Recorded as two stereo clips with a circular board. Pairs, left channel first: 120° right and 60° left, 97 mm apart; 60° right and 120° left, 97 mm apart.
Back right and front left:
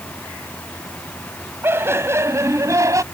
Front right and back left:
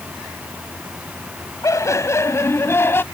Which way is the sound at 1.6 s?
5° right.